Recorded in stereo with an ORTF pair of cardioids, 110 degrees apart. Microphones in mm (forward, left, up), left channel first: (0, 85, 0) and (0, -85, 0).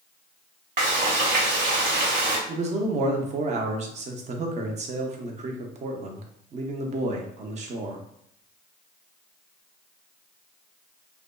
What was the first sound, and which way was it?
Frying, 50° right.